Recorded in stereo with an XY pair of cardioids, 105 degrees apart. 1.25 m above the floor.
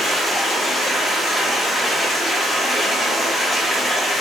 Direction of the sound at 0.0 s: 25° left.